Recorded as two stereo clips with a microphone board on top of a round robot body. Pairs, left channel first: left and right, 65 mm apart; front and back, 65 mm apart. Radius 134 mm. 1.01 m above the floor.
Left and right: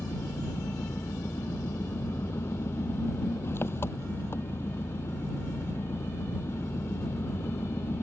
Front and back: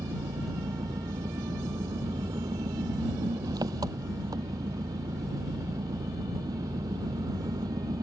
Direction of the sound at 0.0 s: 145° left.